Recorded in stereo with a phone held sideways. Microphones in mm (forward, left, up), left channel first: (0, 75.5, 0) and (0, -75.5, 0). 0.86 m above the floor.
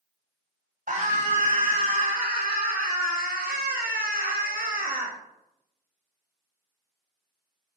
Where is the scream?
65° right (ahead or behind), 3.5 m.